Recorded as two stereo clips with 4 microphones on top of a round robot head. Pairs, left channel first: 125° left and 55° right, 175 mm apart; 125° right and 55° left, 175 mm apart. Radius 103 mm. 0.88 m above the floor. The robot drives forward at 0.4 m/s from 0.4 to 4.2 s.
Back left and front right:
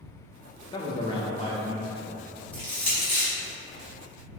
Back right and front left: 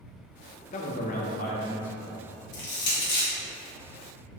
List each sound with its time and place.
0.7 s a man speaking: 170° right, 0.6 m; by 2.2 s 175° right, 1.1 m
2.5 s crushing: 150° right, 1.0 m; by 3.3 s 155° right, 1.3 m